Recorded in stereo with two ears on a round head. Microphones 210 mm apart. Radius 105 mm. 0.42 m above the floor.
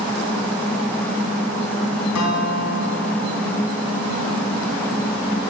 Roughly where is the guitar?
Left.